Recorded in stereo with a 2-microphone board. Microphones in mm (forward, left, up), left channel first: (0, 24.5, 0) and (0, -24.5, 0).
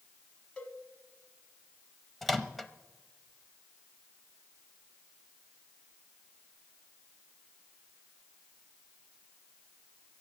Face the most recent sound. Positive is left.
turn(degrees=5)  # may be behind; listen again after turning